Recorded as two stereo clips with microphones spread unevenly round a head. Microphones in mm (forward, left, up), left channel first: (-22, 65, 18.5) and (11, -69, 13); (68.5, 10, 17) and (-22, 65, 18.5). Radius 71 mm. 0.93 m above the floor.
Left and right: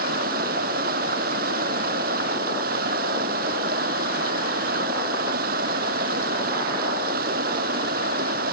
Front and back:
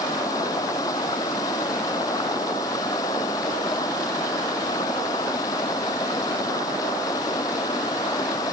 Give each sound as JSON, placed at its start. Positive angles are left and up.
{"t": 0.0, "sound": "running water", "azimuth_deg": -100}